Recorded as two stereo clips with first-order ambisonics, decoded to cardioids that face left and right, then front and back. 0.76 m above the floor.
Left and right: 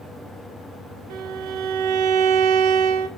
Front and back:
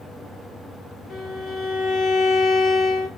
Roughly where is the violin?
Ahead right.